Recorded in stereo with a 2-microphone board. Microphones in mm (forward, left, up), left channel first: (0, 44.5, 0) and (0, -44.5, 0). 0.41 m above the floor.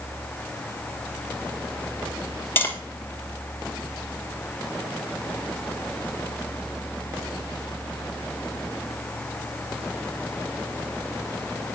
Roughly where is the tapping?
Left.